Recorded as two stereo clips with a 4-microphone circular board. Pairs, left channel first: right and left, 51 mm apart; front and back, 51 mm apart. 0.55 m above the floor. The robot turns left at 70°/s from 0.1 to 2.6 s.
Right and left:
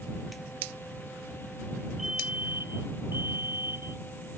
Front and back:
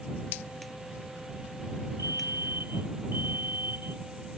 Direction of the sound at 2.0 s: 175° left.